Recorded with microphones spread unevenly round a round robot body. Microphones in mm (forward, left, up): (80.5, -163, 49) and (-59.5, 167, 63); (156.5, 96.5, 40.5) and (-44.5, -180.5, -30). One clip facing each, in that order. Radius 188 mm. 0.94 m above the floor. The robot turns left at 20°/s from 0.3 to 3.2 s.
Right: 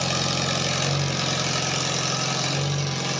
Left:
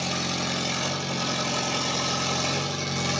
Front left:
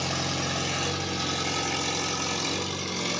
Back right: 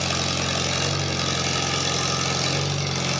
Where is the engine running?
95° right, 3.5 m; by 3.2 s 155° right, 3.5 m.